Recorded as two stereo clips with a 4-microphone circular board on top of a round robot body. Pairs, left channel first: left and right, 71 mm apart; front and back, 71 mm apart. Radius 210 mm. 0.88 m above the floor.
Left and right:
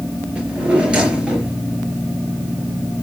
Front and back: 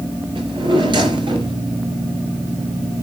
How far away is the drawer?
About 5 m.